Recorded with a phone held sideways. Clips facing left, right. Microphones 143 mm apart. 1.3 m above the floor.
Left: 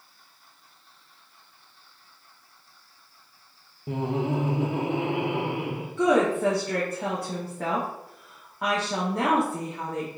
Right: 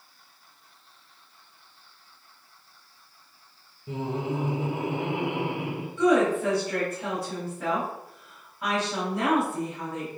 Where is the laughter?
55° left (ahead or behind), 0.6 m; by 5.9 s 80° left, 2.0 m.